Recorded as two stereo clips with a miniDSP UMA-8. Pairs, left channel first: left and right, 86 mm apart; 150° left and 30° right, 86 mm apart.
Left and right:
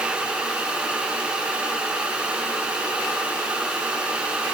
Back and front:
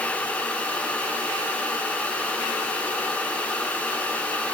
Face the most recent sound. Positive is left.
No sound to turn to.